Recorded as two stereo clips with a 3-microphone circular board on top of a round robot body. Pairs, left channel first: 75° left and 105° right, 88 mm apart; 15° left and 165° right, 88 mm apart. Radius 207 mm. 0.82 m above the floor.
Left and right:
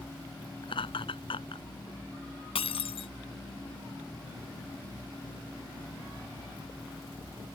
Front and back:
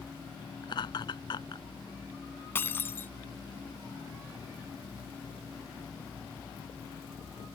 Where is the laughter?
50° left.